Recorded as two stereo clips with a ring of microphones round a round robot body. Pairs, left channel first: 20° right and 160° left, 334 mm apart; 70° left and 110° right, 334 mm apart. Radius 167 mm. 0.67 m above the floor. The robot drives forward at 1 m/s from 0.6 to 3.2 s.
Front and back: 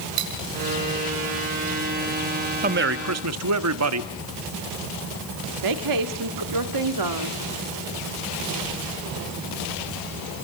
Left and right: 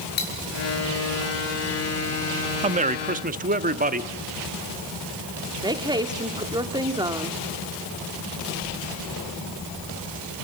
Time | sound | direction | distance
0.2 | cutlery clinking | 130° left | 5 m
2.6 | a man speaking | 165° right | 0.9 m
5.6 | a woman speaking | 170° left | 1.7 m